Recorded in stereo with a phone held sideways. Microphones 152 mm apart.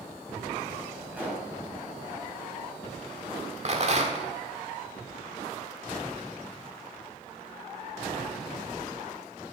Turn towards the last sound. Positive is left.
turn(degrees=-45)  # may be behind; listen again after turning